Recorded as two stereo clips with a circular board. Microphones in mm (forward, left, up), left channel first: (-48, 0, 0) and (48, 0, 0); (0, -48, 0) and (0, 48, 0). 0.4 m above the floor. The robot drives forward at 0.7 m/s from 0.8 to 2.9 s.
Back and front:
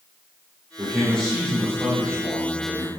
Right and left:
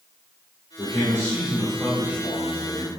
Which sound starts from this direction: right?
A man speaking, at 0.8 s.